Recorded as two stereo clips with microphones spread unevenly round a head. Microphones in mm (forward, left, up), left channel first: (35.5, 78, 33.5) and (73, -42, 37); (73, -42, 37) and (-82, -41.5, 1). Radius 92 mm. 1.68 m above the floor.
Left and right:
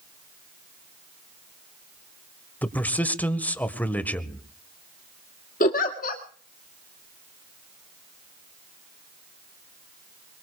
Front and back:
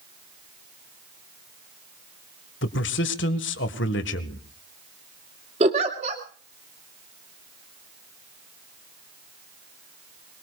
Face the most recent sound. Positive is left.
turn(degrees=120)